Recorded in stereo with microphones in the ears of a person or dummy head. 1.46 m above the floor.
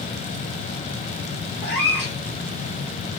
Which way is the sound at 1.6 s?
Centre (ahead or behind).